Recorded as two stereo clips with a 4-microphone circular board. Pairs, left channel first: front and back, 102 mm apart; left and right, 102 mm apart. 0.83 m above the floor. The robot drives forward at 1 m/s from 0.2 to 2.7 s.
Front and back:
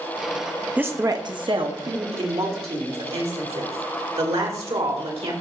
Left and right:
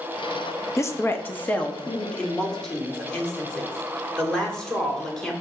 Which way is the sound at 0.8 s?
115° left.